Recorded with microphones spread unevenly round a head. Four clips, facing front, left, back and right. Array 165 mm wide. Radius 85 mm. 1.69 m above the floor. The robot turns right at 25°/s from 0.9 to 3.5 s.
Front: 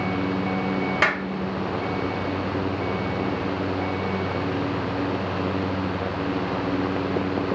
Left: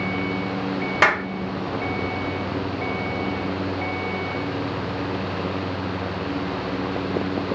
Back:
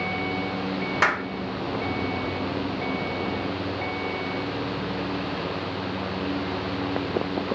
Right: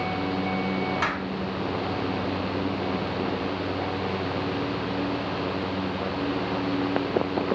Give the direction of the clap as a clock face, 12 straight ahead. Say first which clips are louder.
Left 8 dB, back 3 dB; 9 o'clock.